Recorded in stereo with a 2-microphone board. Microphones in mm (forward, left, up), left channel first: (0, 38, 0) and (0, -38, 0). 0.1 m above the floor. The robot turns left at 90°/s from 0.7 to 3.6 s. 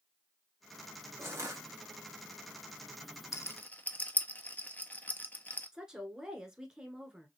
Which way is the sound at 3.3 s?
40° left (ahead or behind).